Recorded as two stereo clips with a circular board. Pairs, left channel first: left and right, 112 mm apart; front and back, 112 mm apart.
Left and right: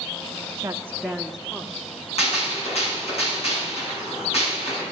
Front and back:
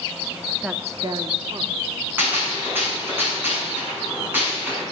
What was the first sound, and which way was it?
A woman speaking, 100° right.